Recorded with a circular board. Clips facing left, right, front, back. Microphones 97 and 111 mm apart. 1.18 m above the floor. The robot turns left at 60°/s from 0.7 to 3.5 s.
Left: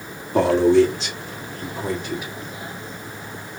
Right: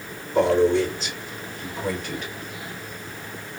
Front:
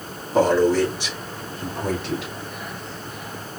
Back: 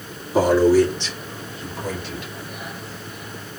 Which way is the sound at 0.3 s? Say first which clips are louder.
Left 3 dB, back 2 dB; 100° left.